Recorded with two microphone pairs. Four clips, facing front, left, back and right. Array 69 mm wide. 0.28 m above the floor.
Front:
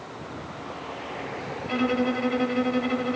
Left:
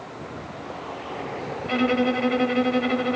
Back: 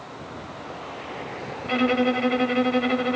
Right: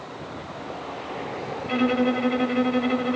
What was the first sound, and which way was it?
A violin, 150° left.